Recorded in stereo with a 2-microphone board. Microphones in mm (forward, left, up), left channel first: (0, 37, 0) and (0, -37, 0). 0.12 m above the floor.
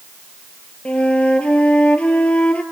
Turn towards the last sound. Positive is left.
turn(degrees=15)  # may be behind; listen again after turning